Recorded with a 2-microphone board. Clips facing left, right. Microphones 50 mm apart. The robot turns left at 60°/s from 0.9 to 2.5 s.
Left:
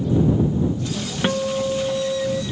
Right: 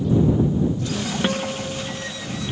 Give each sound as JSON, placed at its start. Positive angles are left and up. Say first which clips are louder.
{"t": 1.2, "sound": "a guitar", "louder": "left 8 dB", "azimuth_deg": 175}